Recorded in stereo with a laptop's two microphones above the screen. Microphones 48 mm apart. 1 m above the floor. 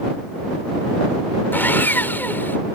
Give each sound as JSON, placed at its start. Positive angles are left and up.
{"t": 1.5, "sound": "sawing", "side_deg": 45}